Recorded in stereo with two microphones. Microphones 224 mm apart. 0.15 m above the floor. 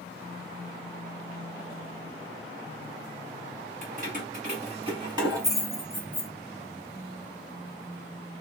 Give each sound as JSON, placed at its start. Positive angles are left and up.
{"t": 3.8, "sound": "keys jangling", "side_deg": -40, "distance_m": 1.3}